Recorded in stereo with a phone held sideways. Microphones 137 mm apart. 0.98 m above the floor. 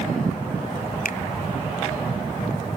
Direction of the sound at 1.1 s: 80° left.